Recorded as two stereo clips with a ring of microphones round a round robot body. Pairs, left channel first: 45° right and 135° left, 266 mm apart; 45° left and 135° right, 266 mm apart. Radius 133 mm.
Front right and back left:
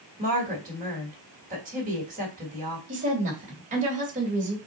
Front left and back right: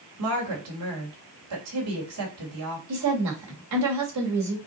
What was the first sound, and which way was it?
A woman speaking, 165° right.